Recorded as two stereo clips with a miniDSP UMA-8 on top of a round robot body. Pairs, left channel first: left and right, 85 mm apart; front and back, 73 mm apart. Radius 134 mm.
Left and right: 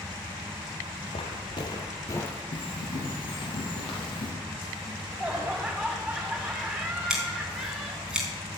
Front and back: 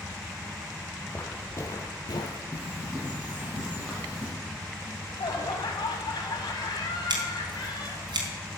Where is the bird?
110° left, 3.5 m.